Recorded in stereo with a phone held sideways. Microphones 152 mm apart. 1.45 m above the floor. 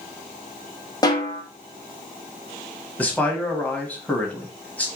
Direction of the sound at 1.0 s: 25° left (ahead or behind).